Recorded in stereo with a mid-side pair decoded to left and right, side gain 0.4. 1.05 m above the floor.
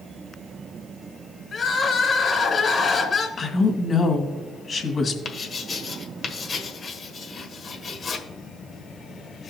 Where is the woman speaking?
50° left, 1.9 m.